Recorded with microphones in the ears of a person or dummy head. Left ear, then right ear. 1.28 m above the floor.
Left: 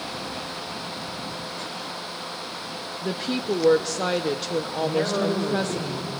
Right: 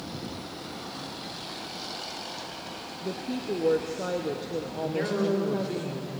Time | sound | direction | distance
3.0 | a woman speaking | 45° left (ahead or behind) | 0.9 m
4.8 | a man speaking | centre (ahead or behind) | 3 m